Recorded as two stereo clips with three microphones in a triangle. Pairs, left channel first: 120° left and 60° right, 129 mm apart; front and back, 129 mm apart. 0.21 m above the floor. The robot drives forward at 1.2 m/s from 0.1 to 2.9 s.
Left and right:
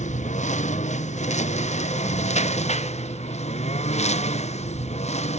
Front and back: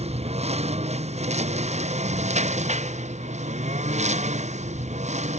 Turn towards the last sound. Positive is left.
turn(degrees=150)